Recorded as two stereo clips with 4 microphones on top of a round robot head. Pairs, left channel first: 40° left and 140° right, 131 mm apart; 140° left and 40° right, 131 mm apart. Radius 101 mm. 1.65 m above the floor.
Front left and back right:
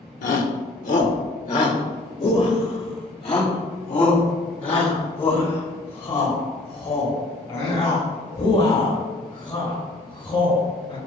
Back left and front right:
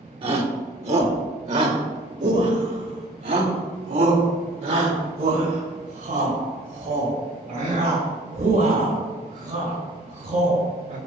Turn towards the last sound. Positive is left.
turn(degrees=-10)